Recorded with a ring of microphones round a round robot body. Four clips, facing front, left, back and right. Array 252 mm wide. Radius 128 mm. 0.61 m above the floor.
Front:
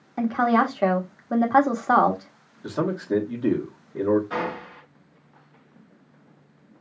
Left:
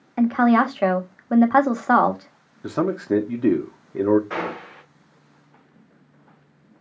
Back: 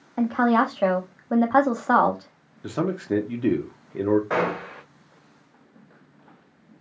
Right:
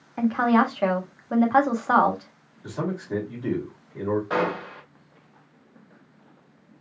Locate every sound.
0.2 s a woman speaking: 85° left, 1.1 m
2.6 s a man speaking: 105° left, 1.0 m
4.3 s a gunshot: 160° right, 1.5 m